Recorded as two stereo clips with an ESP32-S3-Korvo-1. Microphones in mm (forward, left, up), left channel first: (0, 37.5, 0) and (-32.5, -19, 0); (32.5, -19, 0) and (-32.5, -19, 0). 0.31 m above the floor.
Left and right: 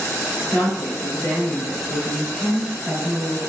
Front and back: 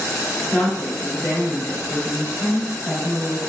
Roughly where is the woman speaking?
Ahead left.